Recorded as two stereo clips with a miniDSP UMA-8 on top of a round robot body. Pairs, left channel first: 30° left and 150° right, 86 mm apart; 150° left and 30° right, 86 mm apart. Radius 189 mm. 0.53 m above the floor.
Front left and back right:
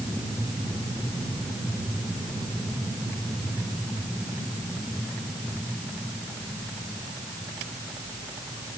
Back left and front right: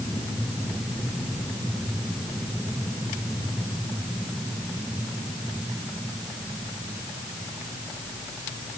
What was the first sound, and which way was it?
Only background noise.